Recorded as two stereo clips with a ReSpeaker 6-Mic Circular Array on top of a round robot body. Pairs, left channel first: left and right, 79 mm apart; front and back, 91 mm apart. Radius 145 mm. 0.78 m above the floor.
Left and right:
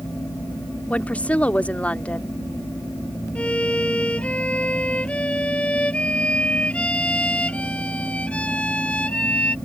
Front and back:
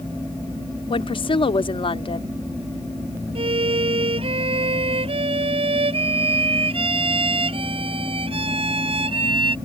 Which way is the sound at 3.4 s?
165° left.